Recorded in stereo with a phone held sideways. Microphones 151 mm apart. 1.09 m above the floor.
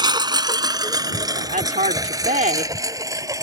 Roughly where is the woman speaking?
Right.